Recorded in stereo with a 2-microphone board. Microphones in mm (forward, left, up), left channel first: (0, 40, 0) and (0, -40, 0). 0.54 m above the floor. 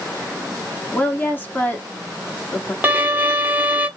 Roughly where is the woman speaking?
Left.